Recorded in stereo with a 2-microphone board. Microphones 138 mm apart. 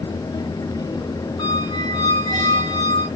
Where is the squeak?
35° left (ahead or behind), 2 m.